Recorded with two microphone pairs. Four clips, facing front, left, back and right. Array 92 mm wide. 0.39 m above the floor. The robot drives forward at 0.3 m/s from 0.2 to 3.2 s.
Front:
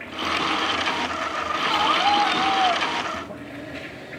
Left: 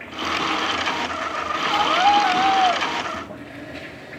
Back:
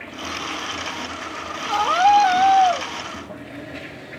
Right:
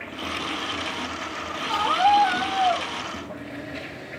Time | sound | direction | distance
1.7 | a scream | 165° left | 2 m